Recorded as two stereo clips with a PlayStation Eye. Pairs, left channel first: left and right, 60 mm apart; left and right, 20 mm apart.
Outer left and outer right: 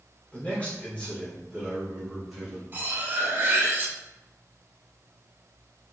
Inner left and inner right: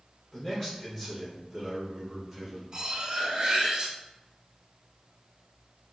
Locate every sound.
0.3 s a man speaking: 25° left (ahead or behind), 1.2 m; by 2.6 s centre (ahead or behind), 1.6 m
2.7 s cutlery clinking: 35° right (ahead or behind), 0.5 m